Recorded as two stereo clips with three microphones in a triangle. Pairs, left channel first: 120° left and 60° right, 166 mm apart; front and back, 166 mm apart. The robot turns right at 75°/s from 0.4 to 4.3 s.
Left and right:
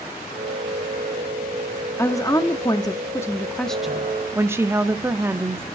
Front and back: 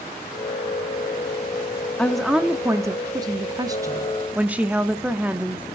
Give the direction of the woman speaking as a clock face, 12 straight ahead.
10 o'clock.